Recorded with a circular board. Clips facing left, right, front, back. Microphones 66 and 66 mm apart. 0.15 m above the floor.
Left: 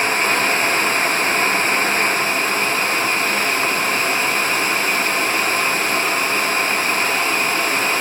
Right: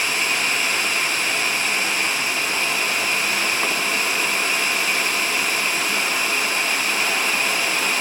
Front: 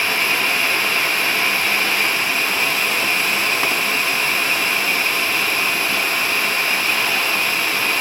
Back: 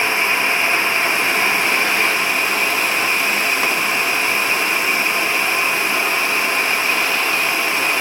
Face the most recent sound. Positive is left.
No sound to turn to.